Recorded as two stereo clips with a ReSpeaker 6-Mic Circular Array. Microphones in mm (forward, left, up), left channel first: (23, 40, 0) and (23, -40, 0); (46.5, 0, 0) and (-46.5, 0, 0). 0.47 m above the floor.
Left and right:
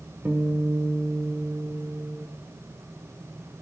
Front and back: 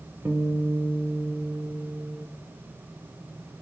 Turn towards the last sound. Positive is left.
turn(degrees=-135)